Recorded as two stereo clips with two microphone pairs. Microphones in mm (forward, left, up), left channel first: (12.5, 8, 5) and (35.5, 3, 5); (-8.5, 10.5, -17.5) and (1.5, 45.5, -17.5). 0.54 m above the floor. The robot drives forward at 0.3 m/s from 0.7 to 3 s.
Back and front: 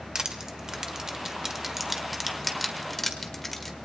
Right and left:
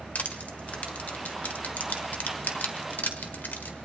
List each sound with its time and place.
0.1 s crushing: 65° right, 1.2 m; by 3.8 s 105° right, 1.1 m